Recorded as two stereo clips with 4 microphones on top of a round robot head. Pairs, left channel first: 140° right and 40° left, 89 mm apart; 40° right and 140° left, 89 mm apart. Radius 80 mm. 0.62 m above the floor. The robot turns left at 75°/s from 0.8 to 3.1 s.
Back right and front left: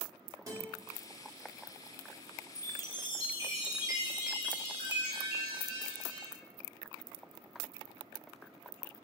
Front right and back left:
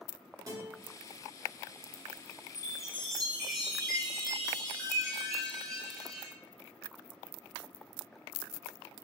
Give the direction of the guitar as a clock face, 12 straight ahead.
9 o'clock.